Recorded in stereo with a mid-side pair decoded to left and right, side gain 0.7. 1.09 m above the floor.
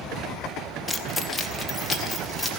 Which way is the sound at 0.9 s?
15° left.